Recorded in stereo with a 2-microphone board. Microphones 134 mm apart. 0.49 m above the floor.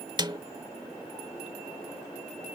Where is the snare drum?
35° right (ahead or behind).